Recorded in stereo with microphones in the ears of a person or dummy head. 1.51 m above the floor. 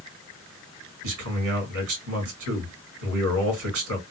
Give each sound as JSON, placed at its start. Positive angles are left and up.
{"t": 1.0, "sound": "a man speaking", "side_deg": -75, "distance_m": 1.6}